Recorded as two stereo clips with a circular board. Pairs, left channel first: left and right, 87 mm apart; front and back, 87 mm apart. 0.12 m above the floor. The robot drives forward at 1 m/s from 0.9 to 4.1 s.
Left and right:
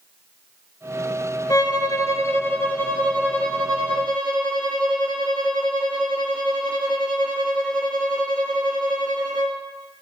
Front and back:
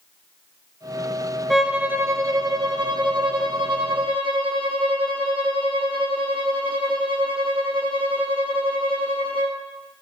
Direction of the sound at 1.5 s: 90° left.